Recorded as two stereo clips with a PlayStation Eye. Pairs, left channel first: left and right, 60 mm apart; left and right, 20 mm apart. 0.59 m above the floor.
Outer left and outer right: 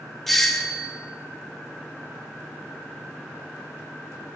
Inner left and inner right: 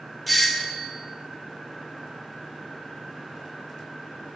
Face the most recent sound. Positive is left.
turn(degrees=5)  # may be behind; listen again after turning